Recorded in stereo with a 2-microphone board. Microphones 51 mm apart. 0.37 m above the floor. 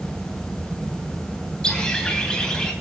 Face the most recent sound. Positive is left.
turn(degrees=15)  # may be behind; listen again after turning